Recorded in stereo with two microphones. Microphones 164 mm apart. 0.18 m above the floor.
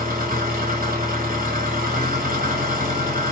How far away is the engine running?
About 1.1 m.